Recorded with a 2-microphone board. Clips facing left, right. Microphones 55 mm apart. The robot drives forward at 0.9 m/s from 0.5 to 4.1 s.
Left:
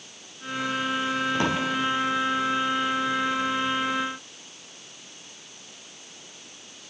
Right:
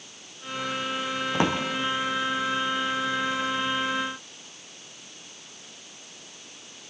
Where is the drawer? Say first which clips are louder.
Right 3 dB; 30° right (ahead or behind), 2.5 m.